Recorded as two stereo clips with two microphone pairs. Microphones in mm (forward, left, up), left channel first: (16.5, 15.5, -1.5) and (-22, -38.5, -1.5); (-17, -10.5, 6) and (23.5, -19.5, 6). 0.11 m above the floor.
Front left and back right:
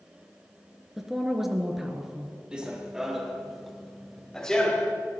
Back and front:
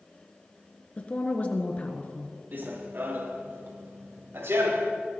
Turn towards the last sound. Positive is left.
turn(degrees=-20)